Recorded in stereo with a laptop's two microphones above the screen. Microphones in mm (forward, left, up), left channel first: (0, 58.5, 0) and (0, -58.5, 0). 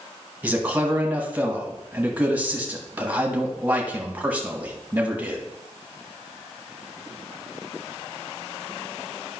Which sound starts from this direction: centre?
A man speaking, at 0.4 s.